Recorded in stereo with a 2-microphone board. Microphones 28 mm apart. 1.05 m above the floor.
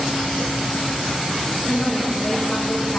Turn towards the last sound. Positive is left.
turn(degrees=25)  # may be behind; listen again after turning